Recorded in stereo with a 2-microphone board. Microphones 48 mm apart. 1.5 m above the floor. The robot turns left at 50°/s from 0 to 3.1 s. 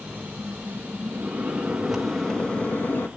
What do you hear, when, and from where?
1.1 s a microwave: 130° right, 1.8 m; by 3.1 s 130° left, 1.8 m